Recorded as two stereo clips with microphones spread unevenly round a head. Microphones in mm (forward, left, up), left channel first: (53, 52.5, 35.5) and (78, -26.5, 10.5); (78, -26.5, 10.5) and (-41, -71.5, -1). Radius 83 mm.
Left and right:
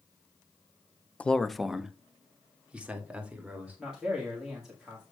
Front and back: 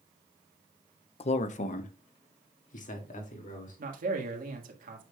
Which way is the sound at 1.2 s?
15° left.